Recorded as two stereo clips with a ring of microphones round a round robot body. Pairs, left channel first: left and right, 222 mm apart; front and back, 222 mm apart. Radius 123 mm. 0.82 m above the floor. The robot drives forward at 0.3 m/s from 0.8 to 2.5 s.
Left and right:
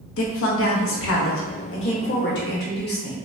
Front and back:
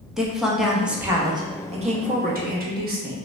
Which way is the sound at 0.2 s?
90° left.